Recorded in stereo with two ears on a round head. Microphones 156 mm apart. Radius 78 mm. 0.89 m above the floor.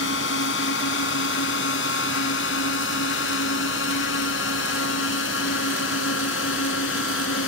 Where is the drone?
75° left (ahead or behind); by 7.5 s 80° left.